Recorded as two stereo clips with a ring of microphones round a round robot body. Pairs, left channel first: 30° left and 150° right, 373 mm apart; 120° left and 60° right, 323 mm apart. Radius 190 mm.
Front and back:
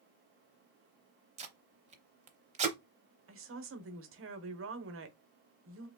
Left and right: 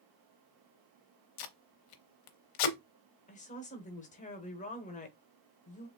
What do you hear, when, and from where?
1.4 s tape being pulled: 135° left, 0.7 m
3.3 s a woman speaking: 175° left, 1.1 m